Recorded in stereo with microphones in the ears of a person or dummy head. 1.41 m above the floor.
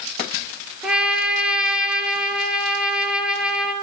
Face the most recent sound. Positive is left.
turn(degrees=-5)  # may be behind; listen again after turning